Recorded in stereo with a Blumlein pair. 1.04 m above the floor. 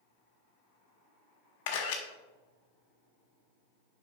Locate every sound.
1.7 s a camera shutter: 50° left, 1.5 m